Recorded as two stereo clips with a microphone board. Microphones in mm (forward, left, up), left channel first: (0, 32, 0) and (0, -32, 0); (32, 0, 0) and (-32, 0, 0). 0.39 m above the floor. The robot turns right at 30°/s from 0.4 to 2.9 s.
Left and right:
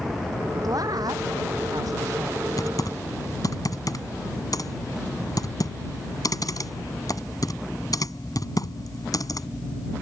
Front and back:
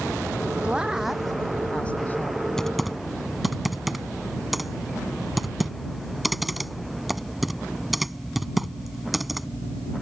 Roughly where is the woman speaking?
Right.